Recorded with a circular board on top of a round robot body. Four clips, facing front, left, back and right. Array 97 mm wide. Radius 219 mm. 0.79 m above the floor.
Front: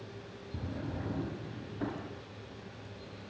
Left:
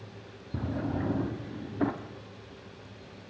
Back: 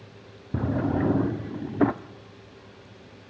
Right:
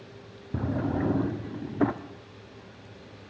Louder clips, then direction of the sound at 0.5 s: Right 4 dB, back 15 dB; 160° right.